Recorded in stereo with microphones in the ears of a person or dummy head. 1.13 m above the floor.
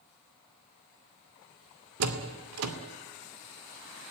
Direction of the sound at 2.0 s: 80° right.